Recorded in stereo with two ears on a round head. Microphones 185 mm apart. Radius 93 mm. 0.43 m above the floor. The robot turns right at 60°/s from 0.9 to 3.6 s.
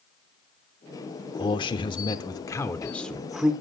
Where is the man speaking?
20° left (ahead or behind), 0.8 m; by 3.5 s 5° right (ahead or behind), 0.8 m.